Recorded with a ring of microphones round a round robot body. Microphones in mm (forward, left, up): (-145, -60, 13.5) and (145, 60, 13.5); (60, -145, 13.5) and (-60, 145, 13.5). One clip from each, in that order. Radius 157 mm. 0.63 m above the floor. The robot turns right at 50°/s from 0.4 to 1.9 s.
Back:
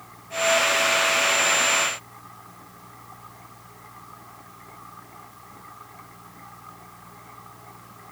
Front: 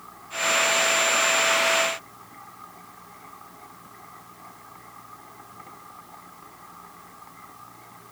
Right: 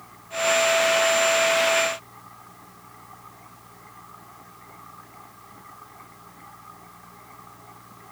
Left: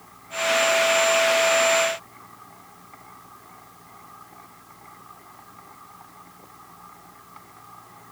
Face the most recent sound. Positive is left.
No sound to turn to.